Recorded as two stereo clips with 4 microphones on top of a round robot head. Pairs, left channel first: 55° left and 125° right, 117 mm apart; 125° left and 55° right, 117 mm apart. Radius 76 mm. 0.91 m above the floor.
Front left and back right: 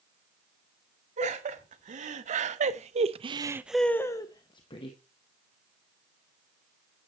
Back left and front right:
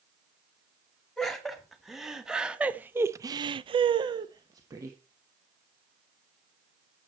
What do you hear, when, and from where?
1.2 s laughter: 145° right, 2 m; by 5.0 s 10° left, 1.3 m